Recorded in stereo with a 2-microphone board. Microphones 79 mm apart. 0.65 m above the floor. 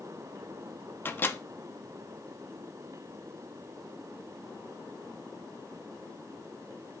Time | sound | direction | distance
1.1 | a microwave | 25° left (ahead or behind) | 0.7 m